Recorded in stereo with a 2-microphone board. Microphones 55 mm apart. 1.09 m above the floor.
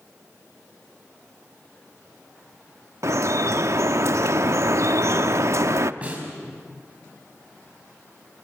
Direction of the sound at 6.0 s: 25° right (ahead or behind).